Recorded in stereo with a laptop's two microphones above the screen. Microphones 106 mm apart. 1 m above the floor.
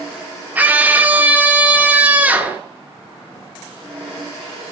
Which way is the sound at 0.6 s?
15° right (ahead or behind).